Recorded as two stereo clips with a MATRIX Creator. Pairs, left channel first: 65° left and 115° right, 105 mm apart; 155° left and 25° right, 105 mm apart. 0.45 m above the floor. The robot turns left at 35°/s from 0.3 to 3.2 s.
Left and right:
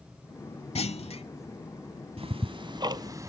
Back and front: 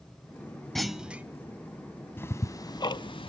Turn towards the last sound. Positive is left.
turn(degrees=-170)